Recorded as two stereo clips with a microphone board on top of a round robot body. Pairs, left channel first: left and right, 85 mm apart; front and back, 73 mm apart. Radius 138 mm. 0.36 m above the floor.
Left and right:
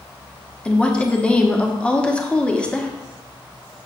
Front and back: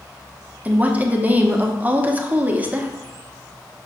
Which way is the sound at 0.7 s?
150° left.